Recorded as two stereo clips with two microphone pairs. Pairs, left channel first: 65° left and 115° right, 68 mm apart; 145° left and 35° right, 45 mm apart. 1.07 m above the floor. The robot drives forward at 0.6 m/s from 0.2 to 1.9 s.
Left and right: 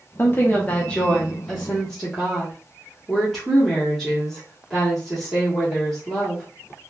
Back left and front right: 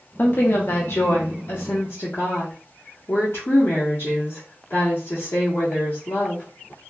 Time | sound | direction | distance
0.2 | a woman speaking | 115° left | 0.9 m